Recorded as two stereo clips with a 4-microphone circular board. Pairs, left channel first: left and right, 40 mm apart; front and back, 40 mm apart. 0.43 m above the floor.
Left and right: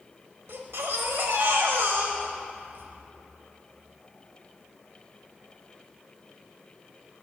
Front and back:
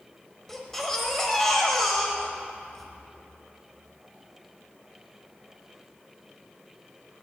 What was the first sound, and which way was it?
A baby crying, 85° right.